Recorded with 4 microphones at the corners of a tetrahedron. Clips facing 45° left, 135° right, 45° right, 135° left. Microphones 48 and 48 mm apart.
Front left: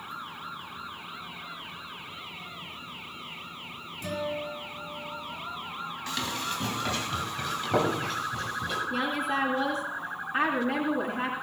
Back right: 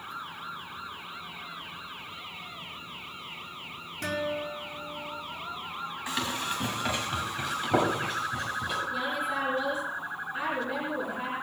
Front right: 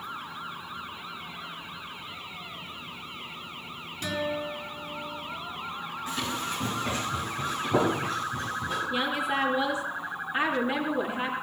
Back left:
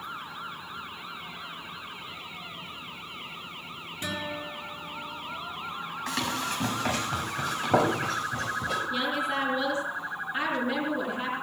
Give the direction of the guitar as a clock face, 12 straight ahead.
5 o'clock.